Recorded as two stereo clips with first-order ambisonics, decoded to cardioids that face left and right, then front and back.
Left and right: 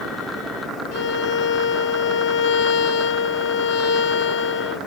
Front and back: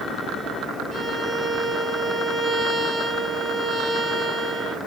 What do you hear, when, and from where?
0.9 s a violin: 105° left, 0.7 m